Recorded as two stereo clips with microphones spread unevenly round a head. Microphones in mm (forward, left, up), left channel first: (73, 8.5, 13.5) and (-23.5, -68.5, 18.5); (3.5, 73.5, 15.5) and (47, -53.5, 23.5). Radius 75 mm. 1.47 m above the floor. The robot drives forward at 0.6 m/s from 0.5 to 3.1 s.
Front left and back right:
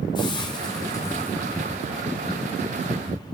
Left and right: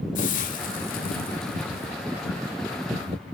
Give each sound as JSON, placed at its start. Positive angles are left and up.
{"t": 0.1, "sound": "a hiss", "azimuth_deg": 100, "distance_m": 1.6}